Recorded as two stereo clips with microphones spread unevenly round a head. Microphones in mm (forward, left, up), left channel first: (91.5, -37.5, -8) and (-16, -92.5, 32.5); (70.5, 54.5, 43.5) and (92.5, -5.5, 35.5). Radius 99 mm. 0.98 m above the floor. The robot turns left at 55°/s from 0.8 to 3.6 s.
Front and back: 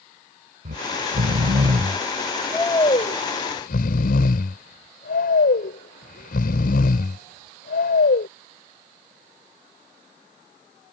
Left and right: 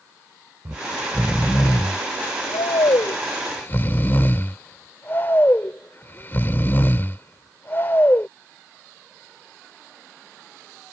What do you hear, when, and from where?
0.7 s snoring: 155° right; by 8.3 s 55° left